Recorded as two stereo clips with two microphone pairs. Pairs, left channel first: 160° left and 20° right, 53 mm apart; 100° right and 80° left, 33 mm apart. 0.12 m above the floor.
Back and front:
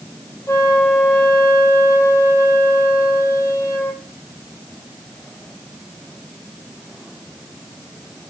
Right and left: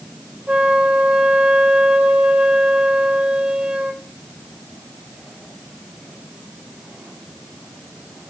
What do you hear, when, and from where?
0.5 s a flute: 135° left, 1.1 m